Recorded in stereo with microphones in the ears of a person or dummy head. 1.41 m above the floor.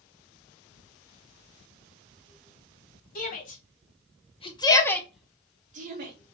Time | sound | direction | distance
3.1 | a shout | 45° left (ahead or behind) | 1.3 m